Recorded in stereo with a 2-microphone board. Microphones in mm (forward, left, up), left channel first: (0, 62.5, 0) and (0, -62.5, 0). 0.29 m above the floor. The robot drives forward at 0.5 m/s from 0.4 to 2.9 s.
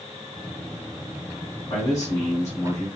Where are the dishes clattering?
I don't hear dishes clattering.